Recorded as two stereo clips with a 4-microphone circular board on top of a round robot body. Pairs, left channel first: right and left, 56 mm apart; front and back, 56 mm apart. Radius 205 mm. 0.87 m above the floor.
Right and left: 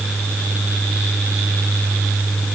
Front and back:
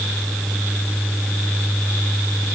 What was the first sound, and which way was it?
Only background noise.